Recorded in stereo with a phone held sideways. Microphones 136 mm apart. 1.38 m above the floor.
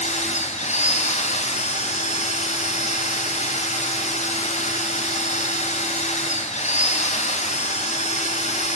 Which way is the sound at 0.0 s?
55° left (ahead or behind).